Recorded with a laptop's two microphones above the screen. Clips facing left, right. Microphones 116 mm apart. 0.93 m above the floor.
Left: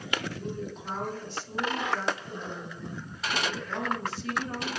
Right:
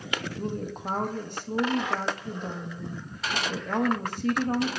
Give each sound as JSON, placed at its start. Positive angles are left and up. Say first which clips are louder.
{"t": 0.4, "sound": "a woman speaking", "louder": "right 3 dB", "side_deg": -50, "distance_m": 0.9}